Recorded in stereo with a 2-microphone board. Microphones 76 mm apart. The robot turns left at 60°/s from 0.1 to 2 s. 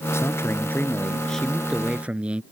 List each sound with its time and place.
0.1 s a man speaking: 85° left; by 2.4 s 25° right